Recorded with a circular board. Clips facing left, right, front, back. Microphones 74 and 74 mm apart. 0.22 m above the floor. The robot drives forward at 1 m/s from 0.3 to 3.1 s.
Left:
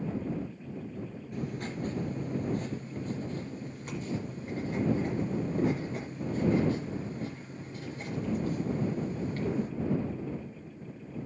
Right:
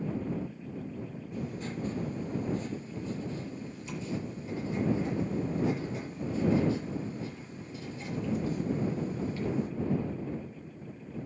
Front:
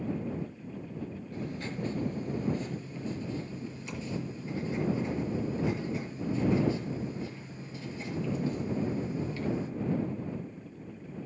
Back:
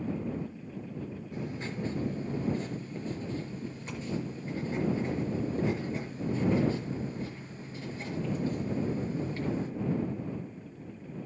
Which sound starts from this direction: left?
Writing, at 1.3 s.